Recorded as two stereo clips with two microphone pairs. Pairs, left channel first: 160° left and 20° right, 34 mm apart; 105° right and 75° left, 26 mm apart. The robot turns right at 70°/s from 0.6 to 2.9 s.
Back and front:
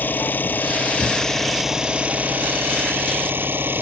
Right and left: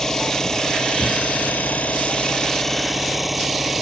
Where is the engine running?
170° right; by 3.8 s 10° right.